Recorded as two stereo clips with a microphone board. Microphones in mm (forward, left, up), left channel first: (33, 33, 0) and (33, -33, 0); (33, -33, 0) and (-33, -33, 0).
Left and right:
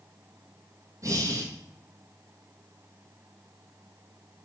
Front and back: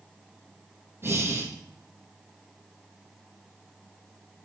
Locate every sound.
1.0 s breathing: 125° right, 1.8 m